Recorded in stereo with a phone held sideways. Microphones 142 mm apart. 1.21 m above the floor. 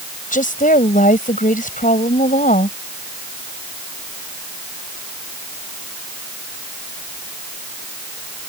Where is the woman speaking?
70° left (ahead or behind).